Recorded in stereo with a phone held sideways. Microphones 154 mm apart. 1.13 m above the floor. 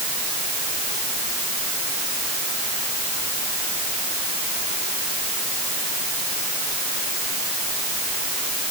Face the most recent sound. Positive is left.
No sound to turn to.